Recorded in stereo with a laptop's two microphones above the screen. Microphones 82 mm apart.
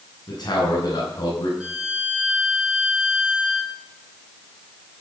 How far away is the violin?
About 4.5 m.